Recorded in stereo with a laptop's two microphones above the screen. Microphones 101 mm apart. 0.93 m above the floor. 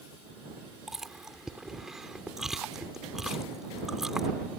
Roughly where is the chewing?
Centre.